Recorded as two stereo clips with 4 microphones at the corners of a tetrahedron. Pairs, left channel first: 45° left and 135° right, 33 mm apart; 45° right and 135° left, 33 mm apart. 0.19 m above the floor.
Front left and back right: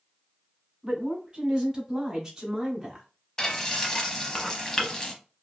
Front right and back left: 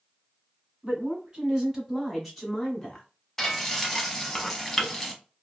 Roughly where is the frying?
Ahead left.